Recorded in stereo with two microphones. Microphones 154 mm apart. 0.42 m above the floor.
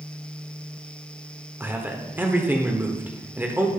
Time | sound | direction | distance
1.6 | a man speaking | 15° right (ahead or behind) | 0.8 m